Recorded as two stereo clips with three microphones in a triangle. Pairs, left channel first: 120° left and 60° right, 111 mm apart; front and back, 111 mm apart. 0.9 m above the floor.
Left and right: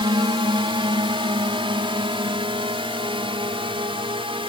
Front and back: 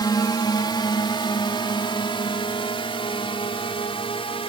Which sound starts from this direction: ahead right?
A drone, at 0.0 s.